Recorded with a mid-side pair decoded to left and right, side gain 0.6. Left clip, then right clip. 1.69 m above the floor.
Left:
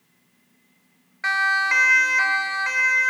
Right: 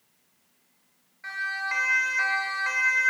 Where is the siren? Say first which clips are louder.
Left 10 dB; 65° left, 2 m; by 3.1 s 10° left, 3.5 m.